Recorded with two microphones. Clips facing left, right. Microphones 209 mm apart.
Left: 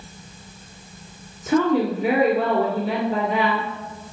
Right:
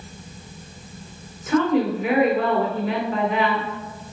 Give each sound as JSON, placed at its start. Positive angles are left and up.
{"t": 1.5, "sound": "a woman speaking", "side_deg": 30, "distance_m": 2.0}